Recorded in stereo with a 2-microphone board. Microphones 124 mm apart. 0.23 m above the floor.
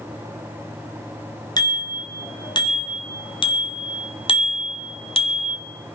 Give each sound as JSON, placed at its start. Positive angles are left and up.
{"t": 1.6, "sound": "a bicycle bell", "side_deg": 35, "distance_m": 2.5}